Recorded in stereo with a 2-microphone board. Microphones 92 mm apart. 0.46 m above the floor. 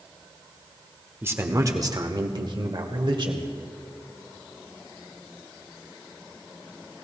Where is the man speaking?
25° right (ahead or behind), 1.0 m; by 3.5 s 60° right (ahead or behind), 1.7 m.